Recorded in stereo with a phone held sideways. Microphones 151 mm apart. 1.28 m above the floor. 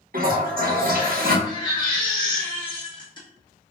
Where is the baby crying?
30° left (ahead or behind), 1.3 m.